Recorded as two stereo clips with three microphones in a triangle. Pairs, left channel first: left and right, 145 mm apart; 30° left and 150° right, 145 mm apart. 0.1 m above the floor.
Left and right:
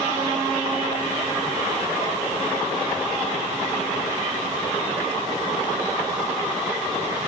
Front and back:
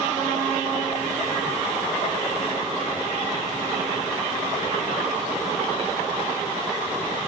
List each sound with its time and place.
Only background noise.